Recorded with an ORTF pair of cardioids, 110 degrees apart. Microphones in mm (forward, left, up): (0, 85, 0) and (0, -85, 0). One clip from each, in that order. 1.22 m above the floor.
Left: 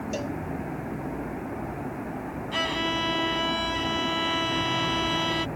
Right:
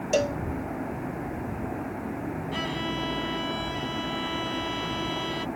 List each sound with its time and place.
0.1 s a cowbell: 40° right
2.5 s a violin: 35° left